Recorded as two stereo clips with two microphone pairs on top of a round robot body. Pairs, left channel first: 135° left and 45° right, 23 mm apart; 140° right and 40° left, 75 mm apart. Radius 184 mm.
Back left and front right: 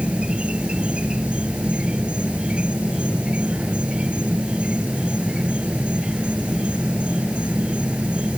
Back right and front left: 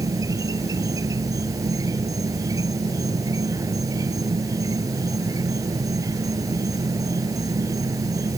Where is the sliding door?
No sliding door in this recording.